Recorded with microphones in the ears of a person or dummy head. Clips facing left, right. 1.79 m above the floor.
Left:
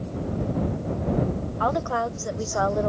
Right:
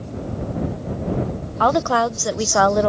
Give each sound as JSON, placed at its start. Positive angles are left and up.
{"t": 1.6, "sound": "a woman speaking", "side_deg": -65}